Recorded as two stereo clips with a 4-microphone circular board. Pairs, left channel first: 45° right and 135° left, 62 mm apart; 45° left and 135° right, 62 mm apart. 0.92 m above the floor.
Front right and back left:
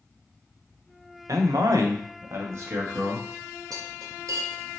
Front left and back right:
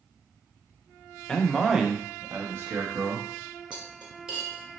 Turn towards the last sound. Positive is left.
turn(degrees=150)